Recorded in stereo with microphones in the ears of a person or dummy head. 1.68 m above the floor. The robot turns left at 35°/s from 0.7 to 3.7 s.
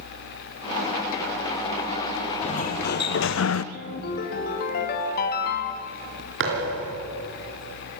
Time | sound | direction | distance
2.4 | a sliding door | 150° left | 0.7 m
3.7 | a ringtone | 60° left (ahead or behind) | 2.5 m
6.4 | a thud | 65° right (ahead or behind) | 4 m